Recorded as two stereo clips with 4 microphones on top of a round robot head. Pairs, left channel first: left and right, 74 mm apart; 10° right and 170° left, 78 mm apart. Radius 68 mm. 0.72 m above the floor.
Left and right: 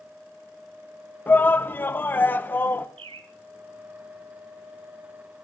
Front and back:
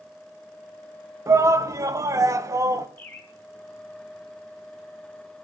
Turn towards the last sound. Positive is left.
turn(degrees=-80)